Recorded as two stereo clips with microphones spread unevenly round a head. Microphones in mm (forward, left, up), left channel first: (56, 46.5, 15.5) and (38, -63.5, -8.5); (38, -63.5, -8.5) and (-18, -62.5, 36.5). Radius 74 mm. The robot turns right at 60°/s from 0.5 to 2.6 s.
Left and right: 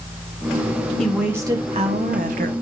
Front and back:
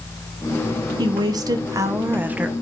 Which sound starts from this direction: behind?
A woman speaking, at 1.0 s.